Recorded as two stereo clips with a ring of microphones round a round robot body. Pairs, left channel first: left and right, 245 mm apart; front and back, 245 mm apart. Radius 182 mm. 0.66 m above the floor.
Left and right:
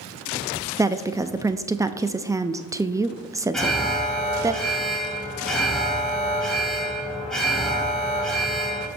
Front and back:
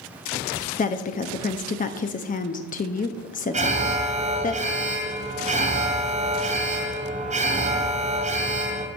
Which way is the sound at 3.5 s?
175° left.